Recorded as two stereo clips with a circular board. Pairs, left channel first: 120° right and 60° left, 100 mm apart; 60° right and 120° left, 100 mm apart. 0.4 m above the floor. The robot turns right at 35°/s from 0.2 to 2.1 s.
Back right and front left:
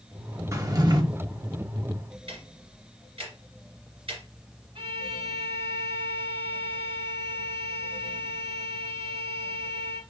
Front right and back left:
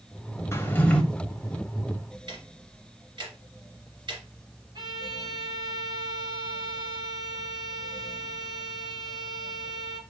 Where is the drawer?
5° left, 0.7 m; by 1.0 s 20° left, 0.7 m.